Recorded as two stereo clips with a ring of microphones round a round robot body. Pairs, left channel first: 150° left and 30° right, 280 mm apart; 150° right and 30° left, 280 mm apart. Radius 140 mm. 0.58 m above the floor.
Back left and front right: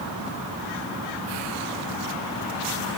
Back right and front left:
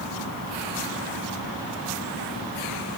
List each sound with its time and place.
Only background noise.